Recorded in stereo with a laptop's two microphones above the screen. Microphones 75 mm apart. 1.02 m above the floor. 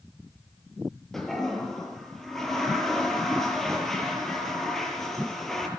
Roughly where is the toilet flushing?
Centre.